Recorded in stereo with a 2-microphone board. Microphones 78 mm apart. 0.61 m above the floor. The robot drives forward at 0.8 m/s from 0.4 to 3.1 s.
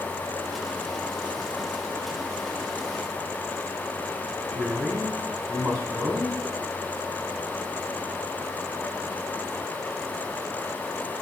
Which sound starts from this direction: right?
A man speaking, at 4.5 s.